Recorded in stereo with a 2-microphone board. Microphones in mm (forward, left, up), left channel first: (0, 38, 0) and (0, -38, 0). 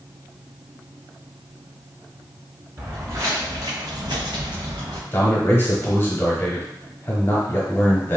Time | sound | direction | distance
2.8 | footsteps | 30° right (ahead or behind) | 1.3 m
5.1 | a man speaking | 30° left (ahead or behind) | 1.2 m